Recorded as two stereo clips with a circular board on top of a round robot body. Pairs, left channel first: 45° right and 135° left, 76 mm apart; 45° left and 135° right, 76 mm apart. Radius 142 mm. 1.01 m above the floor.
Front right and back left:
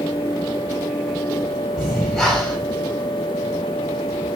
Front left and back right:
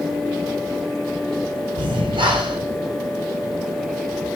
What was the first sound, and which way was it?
Breathing, 135° right.